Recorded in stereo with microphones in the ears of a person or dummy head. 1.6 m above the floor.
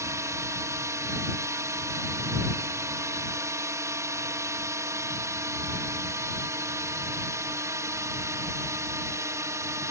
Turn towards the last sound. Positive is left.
turn(degrees=-20)  # may be behind; listen again after turning